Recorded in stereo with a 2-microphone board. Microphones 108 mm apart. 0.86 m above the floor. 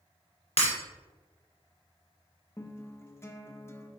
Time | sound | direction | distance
0.6 | breaking glass | 65° left (ahead or behind) | 2.5 m
2.6 | a guitar | 25° left (ahead or behind) | 0.7 m